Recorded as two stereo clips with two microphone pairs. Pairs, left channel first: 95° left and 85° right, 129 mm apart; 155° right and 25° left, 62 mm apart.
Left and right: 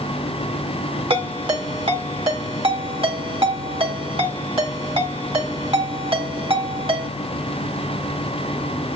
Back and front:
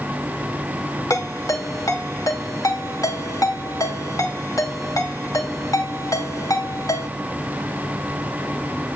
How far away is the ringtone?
About 4.5 m.